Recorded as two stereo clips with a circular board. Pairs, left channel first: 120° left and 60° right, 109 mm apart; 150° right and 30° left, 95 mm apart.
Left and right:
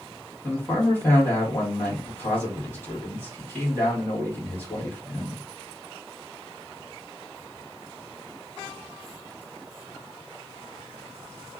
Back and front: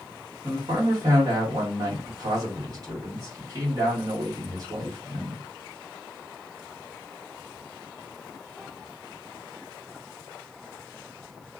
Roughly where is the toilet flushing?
No toilet flushing in this recording.